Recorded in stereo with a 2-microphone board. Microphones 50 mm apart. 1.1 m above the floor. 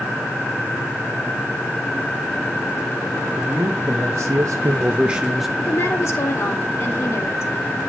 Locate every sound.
3.4 s a man speaking: 40° right (ahead or behind), 1.8 m; by 5.5 s centre (ahead or behind), 1.2 m
5.6 s a woman speaking: 65° left (ahead or behind), 2 m